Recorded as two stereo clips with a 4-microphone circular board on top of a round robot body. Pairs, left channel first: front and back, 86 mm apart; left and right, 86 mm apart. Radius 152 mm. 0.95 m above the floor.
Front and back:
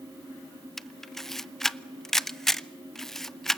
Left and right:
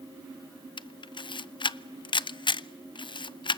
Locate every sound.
0.8 s a camera shutter: 85° left, 0.6 m